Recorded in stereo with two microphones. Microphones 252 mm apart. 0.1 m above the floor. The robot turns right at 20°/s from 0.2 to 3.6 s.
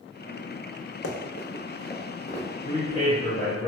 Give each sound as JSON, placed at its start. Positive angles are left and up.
{"t": 1.0, "sound": "running footsteps", "side_deg": 80, "distance_m": 0.6}
{"t": 2.6, "sound": "a man speaking", "side_deg": 15, "distance_m": 1.6}